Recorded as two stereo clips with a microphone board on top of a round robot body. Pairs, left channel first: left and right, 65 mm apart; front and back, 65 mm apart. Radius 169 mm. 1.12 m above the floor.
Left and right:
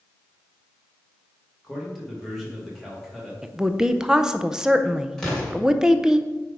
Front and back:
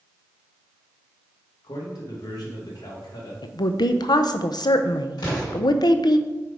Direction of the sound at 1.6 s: Straight ahead.